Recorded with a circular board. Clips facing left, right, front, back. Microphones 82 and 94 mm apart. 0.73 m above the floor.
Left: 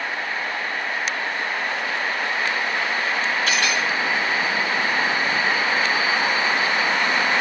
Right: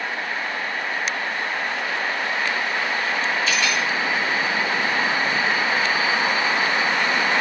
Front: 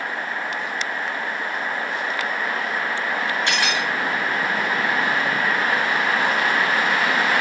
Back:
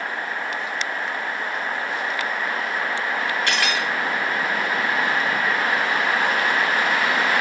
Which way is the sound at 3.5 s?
65° left.